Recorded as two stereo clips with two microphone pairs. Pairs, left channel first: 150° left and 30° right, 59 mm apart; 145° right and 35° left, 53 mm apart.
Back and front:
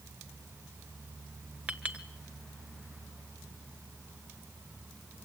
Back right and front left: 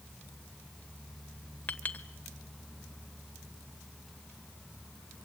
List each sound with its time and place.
1.7 s a clink: 90° right, 1.3 m